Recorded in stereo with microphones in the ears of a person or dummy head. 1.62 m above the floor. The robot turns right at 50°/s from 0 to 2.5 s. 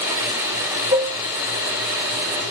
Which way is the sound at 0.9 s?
30° right (ahead or behind).